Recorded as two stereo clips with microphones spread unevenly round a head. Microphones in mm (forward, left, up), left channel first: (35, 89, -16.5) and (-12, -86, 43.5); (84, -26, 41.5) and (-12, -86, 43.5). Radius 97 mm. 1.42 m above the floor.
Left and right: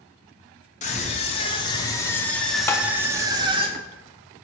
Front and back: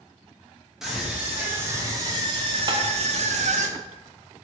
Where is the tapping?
150° left, 0.9 m.